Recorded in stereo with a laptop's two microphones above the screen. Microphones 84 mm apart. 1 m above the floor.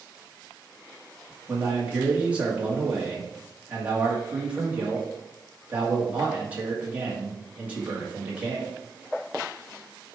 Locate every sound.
1.5 s a man speaking: 20° right (ahead or behind), 1.7 m